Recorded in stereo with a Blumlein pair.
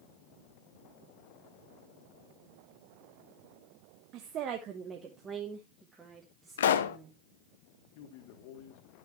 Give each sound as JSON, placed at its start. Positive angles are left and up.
{"t": 4.1, "sound": "a woman speaking", "azimuth_deg": -35, "distance_m": 1.1}
{"t": 6.6, "sound": "a pop", "azimuth_deg": 60, "distance_m": 0.8}
{"t": 8.0, "sound": "a man speaking", "azimuth_deg": 45, "distance_m": 2.5}